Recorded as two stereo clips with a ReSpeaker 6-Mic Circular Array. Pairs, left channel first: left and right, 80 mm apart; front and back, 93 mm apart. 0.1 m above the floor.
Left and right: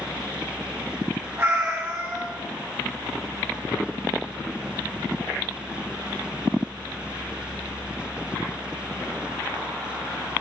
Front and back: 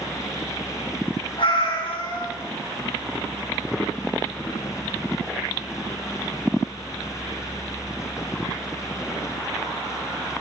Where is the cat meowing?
30° right, 2.5 m.